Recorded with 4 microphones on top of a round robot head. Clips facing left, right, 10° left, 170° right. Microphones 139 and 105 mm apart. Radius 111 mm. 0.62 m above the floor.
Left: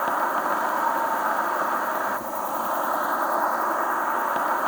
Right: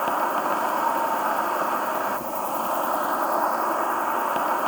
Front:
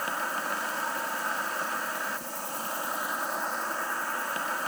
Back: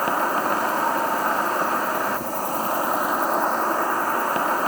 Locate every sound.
0.0 s an insect: 170° right